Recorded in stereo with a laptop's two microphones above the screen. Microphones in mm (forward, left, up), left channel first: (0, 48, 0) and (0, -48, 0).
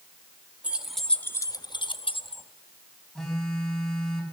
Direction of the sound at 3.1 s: 5° left (ahead or behind).